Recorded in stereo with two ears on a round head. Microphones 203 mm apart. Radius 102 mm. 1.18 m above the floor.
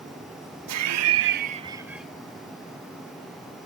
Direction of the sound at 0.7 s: 80° right.